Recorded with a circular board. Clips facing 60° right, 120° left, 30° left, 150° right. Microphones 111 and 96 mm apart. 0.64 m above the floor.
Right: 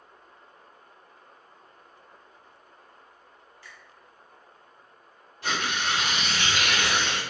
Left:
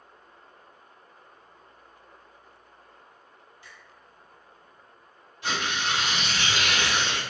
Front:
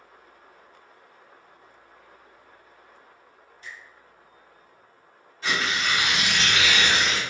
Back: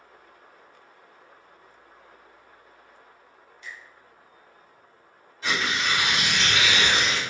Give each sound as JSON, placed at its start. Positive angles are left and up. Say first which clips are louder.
{"t": 3.6, "sound": "a finger snap", "louder": "right 2 dB, back 1 dB", "azimuth_deg": 60, "distance_m": 0.8}
{"t": 5.4, "sound": "tearing paper", "louder": "even, even", "azimuth_deg": -60, "distance_m": 1.5}